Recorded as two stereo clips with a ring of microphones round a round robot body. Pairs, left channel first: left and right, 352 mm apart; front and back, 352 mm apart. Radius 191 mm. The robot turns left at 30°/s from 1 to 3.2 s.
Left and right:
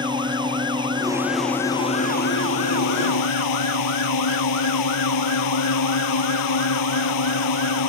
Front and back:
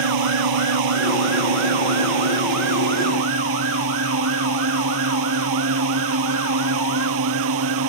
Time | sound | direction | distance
0.0 | a drone | 170° right | ?